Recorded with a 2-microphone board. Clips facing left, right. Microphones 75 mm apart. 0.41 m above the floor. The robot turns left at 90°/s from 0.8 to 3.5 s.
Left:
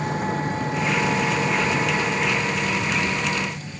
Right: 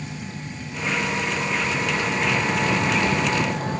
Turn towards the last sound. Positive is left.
turn(degrees=-120)